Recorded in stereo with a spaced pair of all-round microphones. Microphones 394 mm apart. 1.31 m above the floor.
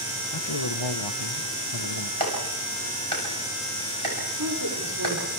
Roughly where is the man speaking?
Left.